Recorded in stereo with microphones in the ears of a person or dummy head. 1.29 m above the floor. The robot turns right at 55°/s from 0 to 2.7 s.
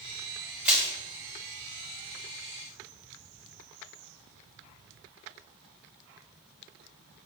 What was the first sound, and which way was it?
Crushing, 10° right (ahead or behind).